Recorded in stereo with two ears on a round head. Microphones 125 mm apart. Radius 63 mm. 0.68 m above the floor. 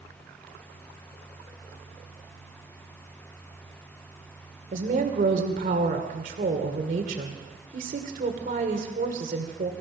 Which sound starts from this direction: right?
A woman speaking, at 4.7 s.